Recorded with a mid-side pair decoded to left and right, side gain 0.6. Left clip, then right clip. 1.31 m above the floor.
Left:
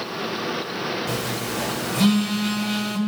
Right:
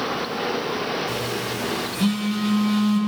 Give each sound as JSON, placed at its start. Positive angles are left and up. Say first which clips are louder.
{"t": 1.1, "sound": "a phone buzzing", "louder": "right 1 dB", "azimuth_deg": 60, "distance_m": 5.0}